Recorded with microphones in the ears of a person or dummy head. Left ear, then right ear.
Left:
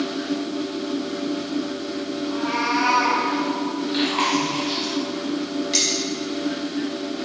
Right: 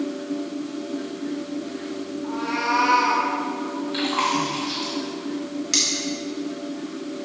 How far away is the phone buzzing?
I don't hear a phone buzzing.